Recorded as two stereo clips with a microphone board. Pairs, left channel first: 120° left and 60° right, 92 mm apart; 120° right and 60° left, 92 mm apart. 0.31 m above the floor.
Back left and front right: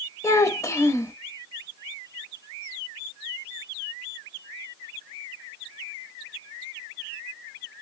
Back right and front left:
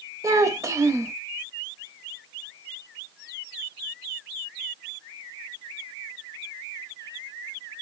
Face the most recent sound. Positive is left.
turn(degrees=85)